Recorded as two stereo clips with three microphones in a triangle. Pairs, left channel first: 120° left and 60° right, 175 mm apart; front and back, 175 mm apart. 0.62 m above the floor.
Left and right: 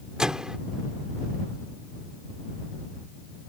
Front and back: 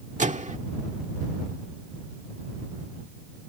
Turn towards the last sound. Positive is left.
turn(degrees=-145)